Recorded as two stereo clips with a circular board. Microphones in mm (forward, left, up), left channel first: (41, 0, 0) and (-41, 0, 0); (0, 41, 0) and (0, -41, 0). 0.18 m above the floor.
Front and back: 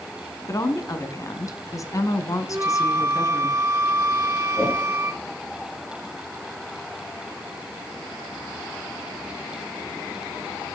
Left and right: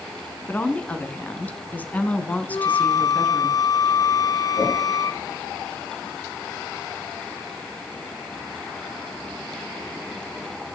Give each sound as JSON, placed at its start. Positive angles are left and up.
{"t": 0.5, "sound": "a woman speaking", "azimuth_deg": 25, "distance_m": 1.7}
{"t": 2.5, "sound": "a flute", "azimuth_deg": 125, "distance_m": 0.8}
{"t": 4.5, "sound": "a whoosh", "azimuth_deg": 65, "distance_m": 7.0}